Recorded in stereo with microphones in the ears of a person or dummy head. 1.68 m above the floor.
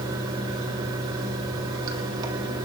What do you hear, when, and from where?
0.0 s running water: 30° right (ahead or behind), 2.5 m